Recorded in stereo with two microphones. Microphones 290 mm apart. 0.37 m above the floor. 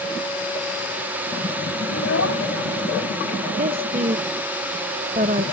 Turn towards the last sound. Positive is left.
turn(degrees=-30)  # may be behind; listen again after turning